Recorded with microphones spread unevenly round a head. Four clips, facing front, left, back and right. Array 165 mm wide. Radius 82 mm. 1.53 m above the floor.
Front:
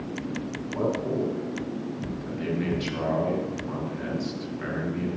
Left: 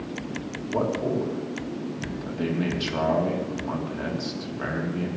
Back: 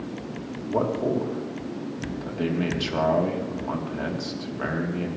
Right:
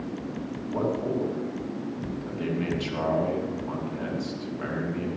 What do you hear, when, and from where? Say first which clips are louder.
0.7 s a man speaking: left 2 dB, back 4 dB; 155° left, 3.5 m